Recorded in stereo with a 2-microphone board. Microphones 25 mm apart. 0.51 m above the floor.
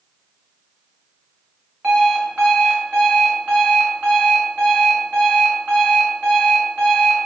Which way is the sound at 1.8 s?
85° right.